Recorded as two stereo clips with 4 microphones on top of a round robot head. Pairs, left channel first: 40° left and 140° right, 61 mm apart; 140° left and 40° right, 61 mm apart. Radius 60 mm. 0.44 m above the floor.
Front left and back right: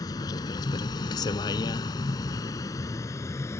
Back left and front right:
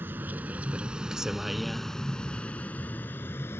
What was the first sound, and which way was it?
A vehicle, 15° left.